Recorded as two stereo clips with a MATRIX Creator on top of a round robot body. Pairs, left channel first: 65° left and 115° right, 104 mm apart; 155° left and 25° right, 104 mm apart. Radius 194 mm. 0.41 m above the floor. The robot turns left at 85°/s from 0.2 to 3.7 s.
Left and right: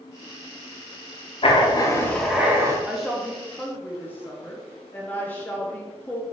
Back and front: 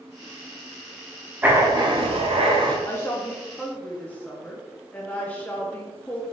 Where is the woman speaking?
Straight behind, 0.9 m; by 6.2 s 110° left, 0.9 m.